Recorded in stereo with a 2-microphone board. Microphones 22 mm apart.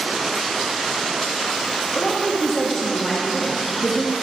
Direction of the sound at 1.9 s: 30° left (ahead or behind).